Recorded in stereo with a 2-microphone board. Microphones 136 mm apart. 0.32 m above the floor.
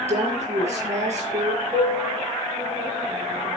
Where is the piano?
15° right (ahead or behind), 5 m.